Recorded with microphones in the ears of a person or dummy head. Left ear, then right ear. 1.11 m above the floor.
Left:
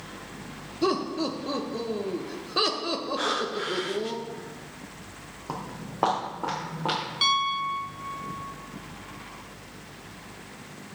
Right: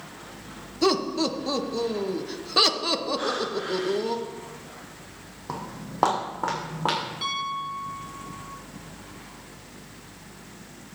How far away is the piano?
About 1.3 m.